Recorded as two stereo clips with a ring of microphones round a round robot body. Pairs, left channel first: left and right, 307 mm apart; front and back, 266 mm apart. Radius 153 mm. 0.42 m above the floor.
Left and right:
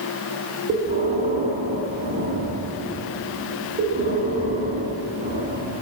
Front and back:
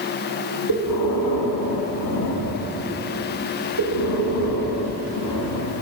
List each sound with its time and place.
0.7 s breathing: 20° right, 1.5 m